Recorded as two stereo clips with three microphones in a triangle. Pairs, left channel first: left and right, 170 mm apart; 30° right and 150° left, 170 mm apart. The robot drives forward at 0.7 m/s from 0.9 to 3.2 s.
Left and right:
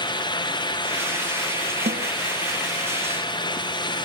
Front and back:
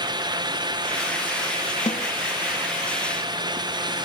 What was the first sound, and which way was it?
A snare drum, 80° right.